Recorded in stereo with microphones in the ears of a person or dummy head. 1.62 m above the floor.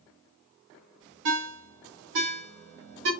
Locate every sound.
1.2 s a ringtone: 70° right (ahead or behind), 1.3 m